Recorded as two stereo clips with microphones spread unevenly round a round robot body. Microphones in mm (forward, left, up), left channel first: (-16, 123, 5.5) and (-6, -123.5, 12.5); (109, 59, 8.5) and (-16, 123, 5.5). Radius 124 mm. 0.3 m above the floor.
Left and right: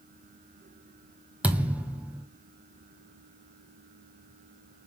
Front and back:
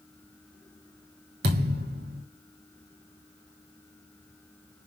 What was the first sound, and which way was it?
A thud, 170° right.